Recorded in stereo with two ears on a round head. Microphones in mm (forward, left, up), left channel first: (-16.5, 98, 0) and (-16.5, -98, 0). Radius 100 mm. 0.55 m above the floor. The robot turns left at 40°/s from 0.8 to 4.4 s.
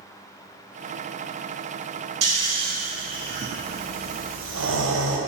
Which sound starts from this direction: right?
Snoring, at 2.2 s.